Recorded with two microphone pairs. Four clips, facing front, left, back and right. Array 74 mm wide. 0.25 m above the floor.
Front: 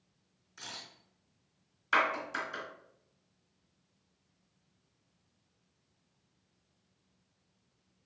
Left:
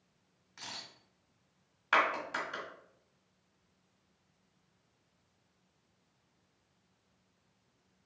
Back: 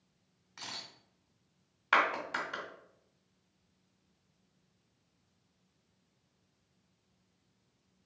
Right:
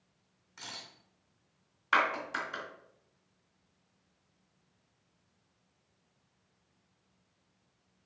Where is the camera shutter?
Straight behind, 1.8 m.